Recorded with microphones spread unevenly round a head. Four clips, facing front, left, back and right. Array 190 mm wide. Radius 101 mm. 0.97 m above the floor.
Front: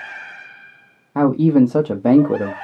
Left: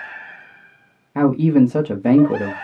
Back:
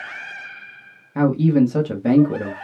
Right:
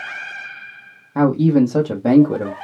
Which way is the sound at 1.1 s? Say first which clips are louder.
Even, front 3 dB; 5° right.